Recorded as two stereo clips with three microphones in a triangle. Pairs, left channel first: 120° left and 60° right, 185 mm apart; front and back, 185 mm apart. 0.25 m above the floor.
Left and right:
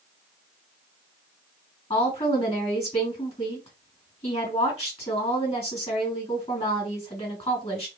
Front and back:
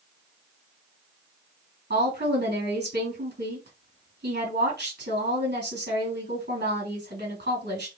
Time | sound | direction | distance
1.9 | a woman speaking | 170° left | 3 m